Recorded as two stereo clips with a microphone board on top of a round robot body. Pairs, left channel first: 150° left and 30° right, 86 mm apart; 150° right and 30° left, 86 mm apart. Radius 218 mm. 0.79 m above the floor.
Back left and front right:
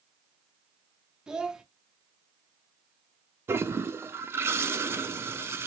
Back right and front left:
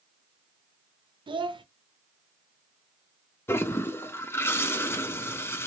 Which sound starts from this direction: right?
A toilet flushing, at 3.5 s.